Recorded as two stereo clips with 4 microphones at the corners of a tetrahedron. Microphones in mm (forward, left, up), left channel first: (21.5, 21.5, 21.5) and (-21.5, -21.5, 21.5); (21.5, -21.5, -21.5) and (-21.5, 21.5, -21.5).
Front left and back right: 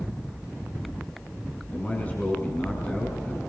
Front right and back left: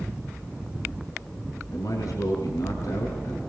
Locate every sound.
1.7 s a man speaking: 20° right, 4.5 m